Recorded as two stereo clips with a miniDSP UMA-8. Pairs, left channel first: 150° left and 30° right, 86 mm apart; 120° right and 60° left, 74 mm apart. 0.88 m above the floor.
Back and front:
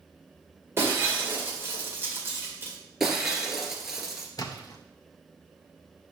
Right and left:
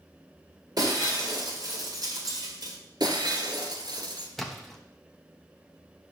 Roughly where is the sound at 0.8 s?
Ahead left.